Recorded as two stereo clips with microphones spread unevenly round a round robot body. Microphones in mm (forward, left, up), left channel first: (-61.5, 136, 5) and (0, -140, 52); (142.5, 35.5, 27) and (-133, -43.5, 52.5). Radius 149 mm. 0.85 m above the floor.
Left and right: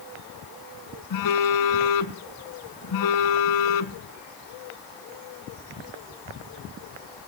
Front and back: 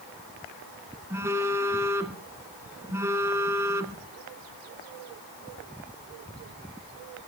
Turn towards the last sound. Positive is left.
turn(degrees=120)